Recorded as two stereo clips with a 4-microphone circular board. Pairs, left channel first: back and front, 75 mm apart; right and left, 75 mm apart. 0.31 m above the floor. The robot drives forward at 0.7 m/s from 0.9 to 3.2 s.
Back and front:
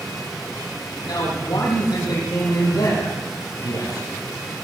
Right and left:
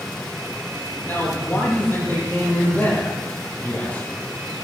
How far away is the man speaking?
About 7.5 m.